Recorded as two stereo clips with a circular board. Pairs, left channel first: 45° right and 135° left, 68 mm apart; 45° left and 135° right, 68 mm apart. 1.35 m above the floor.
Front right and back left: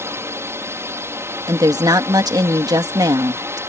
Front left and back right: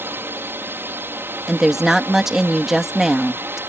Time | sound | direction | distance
0.0 | a drone | 175° left | ?
1.5 | a woman speaking | 140° left | ?